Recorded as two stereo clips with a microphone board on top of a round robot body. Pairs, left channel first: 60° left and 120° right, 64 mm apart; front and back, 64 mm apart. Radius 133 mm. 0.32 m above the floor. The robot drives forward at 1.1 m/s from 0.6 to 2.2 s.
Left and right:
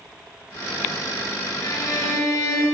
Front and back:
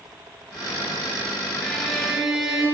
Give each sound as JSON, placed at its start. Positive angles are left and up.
{"t": 1.6, "sound": "a violin", "azimuth_deg": 85, "distance_m": 5.0}